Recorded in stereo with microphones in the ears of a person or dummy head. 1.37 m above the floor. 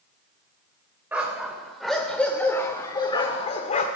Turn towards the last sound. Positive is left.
turn(degrees=45)  # may be behind; listen again after turning